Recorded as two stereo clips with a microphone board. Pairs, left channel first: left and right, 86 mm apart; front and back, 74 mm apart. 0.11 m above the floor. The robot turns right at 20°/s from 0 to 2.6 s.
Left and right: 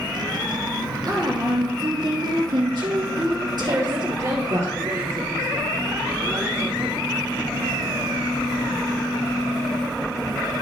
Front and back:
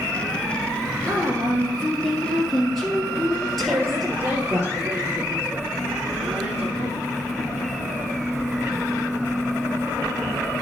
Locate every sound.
1.1 s a woman speaking: 120° right, 2.5 m; by 4.6 s 90° right, 2.5 m
3.6 s a woman speaking: 135° right, 2 m